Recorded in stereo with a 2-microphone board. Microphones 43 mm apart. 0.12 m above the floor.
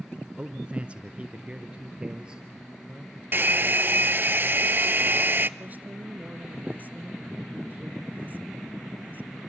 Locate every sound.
0.4 s a man speaking: 25° right (ahead or behind), 1.1 m; by 3.2 s 20° right (ahead or behind), 3 m
3.3 s a hair dryer: 50° right (ahead or behind), 0.6 m
5.6 s a woman speaking: 40° right (ahead or behind), 2.0 m